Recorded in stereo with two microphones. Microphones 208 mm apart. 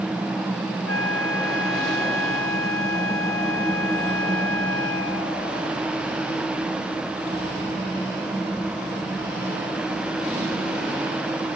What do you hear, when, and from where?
0.9 s a flute: 75° right (ahead or behind)